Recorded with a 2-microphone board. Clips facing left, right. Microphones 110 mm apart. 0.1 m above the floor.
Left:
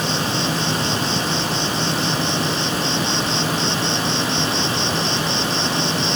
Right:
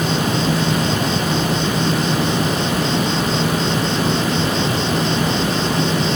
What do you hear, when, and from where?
0.0 s an insect: 45° right (ahead or behind)